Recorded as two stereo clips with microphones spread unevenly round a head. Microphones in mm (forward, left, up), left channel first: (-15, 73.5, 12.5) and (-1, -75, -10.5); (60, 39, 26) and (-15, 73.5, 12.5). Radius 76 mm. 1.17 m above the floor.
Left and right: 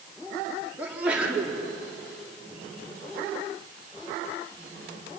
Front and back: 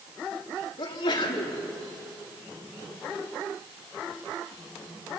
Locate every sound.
0.8 s a sneeze: 5° right, 3.5 m